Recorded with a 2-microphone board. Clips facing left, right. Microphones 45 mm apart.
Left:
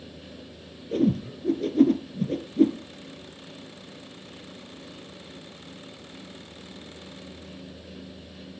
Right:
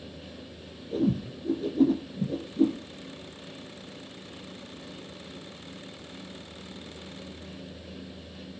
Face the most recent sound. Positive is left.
turn(degrees=70)  # may be behind; listen again after turning